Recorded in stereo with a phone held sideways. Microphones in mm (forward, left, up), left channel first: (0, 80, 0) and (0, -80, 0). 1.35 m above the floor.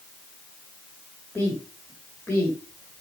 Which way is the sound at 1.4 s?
15° left (ahead or behind).